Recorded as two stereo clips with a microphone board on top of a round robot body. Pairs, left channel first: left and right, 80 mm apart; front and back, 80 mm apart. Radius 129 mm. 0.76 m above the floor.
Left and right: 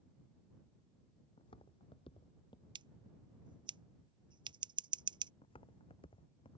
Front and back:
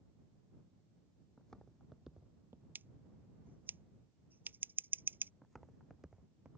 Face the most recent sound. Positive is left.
turn(degrees=105)